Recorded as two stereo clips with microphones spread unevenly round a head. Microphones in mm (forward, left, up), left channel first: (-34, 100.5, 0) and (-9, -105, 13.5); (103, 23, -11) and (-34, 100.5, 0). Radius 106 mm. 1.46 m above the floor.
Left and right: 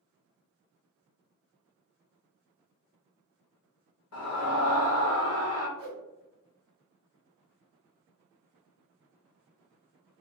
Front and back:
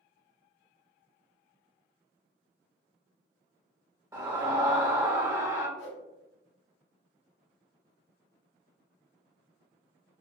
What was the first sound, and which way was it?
A scream, 85° left.